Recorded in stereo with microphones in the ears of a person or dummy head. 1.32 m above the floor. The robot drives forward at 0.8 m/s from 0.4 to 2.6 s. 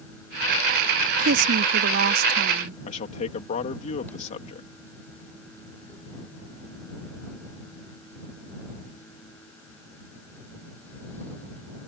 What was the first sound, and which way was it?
A woman speaking, 85° right.